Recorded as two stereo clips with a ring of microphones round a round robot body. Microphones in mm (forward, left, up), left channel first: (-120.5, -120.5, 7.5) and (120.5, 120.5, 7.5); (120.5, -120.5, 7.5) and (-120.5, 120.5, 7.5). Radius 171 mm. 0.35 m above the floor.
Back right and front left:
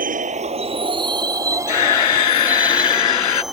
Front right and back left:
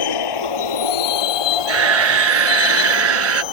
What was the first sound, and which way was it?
A vehicle, 20° right.